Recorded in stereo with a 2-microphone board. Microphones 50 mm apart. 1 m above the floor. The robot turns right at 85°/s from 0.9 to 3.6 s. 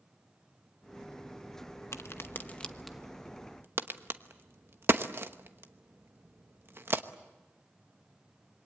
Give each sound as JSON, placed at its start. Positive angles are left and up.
{"t": 1.9, "sound": "a crack", "side_deg": 70, "distance_m": 1.0}